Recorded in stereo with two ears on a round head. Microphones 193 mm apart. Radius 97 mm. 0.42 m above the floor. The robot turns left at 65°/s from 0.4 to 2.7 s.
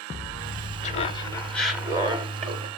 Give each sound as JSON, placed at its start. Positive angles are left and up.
{"t": 0.8, "sound": "laughter", "azimuth_deg": 55, "distance_m": 1.8}